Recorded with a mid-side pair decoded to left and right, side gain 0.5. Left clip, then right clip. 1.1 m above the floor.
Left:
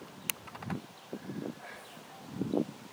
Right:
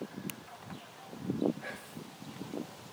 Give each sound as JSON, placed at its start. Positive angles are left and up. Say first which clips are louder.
{"t": 1.6, "sound": "whispering", "louder": "right 3 dB", "azimuth_deg": -45, "distance_m": 0.7}